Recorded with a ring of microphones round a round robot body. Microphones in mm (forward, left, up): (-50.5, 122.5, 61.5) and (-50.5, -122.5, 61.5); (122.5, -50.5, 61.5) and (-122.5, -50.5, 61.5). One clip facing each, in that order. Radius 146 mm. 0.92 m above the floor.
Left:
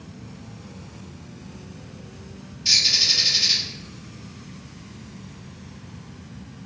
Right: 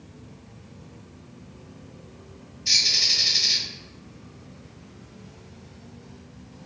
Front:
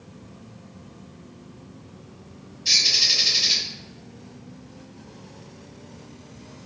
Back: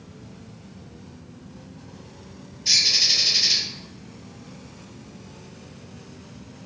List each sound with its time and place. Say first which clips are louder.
2.6 s a bird: left 3 dB, even; 75° left, 1.5 m